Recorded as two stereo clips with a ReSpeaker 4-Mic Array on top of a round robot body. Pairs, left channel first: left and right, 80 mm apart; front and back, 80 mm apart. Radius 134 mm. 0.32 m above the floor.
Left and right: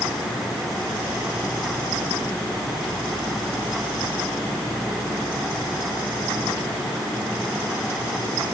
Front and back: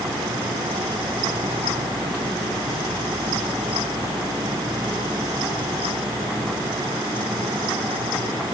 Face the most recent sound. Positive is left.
No sound to turn to.